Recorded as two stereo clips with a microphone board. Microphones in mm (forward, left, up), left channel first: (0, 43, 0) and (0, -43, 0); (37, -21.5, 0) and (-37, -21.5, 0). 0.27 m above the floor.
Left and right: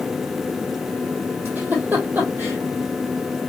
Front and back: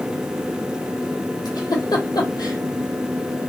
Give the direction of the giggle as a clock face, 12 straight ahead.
1 o'clock.